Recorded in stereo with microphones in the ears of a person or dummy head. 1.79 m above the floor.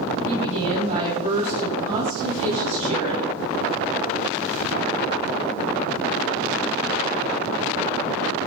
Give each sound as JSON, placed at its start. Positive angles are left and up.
{"t": 0.2, "sound": "a woman speaking", "side_deg": -45, "distance_m": 8.5}